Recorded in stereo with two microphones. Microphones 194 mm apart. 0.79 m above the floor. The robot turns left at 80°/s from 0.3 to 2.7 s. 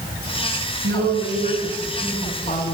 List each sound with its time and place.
0.8 s a woman speaking: 85° right, 7 m; by 2.8 s 125° left, 7 m